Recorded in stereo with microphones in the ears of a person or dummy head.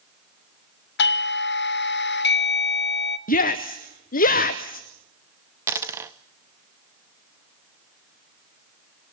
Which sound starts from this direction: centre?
A dropped coin, at 5.7 s.